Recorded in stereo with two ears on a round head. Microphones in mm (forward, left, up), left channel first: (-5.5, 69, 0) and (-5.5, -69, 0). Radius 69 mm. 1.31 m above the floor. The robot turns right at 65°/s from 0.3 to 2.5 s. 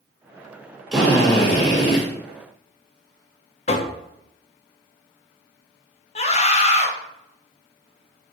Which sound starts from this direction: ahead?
A drill, at 0.9 s.